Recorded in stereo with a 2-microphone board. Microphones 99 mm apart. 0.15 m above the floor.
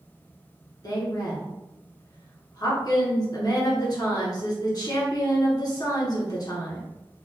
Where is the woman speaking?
45° left (ahead or behind), 1.9 m.